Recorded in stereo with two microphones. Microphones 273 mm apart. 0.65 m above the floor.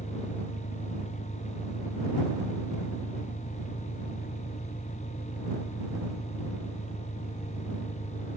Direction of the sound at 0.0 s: 35° left (ahead or behind).